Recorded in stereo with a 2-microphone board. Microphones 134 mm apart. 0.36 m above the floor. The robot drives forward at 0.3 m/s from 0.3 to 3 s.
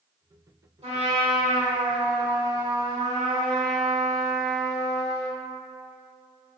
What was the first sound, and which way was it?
A trumpet, 45° right (ahead or behind).